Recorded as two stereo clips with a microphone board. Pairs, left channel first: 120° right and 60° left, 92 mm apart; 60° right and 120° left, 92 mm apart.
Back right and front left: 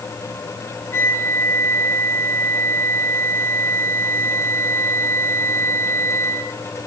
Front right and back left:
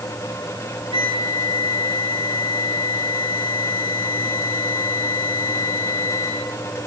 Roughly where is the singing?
No singing in this recording.